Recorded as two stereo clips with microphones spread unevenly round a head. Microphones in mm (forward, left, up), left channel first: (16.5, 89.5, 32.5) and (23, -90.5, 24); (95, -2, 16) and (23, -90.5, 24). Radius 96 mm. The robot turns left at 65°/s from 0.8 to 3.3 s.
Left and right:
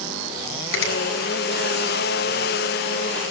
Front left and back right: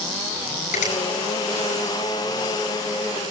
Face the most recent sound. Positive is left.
turn(degrees=-80)